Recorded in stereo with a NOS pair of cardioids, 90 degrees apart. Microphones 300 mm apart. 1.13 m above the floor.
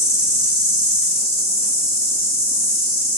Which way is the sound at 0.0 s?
20° left.